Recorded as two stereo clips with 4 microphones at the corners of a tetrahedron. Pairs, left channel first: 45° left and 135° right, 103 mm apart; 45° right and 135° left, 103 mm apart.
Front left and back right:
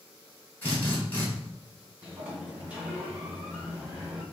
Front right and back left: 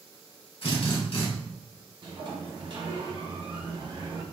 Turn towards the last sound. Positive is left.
turn(degrees=155)